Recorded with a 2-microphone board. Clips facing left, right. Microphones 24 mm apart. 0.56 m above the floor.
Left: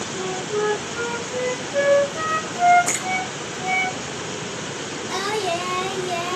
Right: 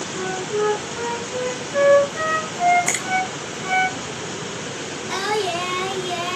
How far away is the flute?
About 1.5 m.